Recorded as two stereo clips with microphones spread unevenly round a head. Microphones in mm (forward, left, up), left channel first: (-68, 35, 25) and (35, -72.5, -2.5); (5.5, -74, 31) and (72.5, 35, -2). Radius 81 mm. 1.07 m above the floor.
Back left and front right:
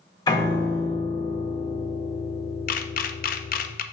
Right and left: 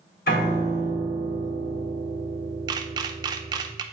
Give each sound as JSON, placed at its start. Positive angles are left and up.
{"t": 0.3, "sound": "a piano", "azimuth_deg": -165, "distance_m": 3.0}
{"t": 2.7, "sound": "a camera shutter", "azimuth_deg": 100, "distance_m": 0.5}